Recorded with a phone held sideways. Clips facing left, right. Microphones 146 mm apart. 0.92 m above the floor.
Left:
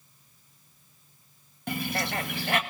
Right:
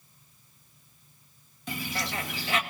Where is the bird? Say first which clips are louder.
Left 4 dB; 65° left (ahead or behind), 1.5 m.